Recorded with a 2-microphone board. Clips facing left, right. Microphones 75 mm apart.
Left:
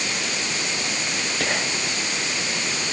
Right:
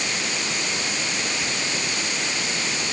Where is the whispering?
70° left (ahead or behind).